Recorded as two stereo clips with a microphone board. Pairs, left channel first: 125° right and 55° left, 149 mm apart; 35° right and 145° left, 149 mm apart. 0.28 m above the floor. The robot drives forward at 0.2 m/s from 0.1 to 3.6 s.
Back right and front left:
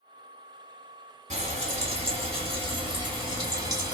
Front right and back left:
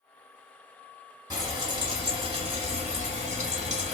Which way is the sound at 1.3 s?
85° left.